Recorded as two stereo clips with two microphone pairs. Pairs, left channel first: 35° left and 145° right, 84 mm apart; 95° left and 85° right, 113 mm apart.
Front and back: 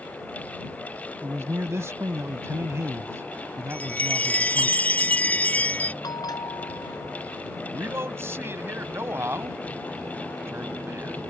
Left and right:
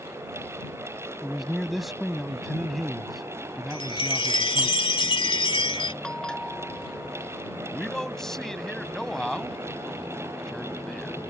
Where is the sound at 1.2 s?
170° right.